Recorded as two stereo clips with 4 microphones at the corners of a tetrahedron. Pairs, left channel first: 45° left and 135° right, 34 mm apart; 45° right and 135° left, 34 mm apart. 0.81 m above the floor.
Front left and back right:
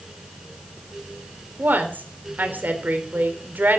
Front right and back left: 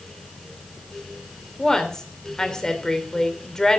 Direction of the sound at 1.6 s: 115° right.